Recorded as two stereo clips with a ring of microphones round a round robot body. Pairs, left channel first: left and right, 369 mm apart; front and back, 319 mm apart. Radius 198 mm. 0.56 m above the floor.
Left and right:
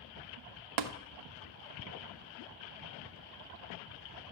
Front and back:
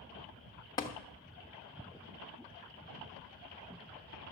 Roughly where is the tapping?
Right.